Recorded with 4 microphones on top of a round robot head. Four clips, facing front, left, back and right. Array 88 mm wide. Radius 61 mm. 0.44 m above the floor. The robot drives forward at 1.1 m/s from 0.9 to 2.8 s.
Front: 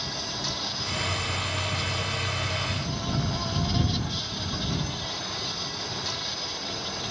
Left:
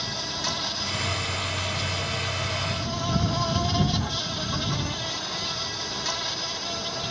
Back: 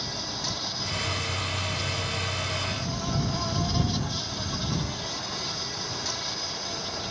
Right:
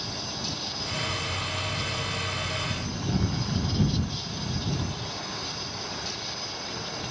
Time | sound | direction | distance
0.0 | an insect | 90° left | ?